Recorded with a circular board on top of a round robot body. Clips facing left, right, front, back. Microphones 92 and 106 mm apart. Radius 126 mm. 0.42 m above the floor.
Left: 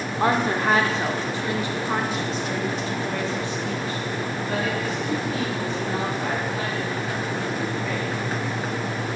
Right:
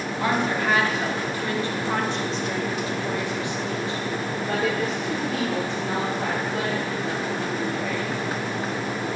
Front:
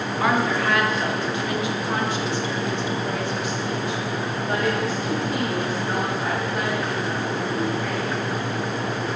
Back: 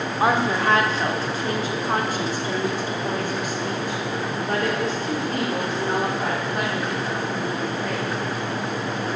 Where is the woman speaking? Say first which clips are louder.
Left 3 dB, back 1 dB; 120° left, 1.9 m; by 8.1 s 120° right, 4 m.